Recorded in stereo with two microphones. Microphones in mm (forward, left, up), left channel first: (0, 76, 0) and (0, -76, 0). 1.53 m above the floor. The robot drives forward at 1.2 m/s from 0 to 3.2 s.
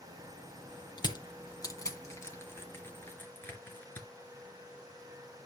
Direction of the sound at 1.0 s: 30° left (ahead or behind).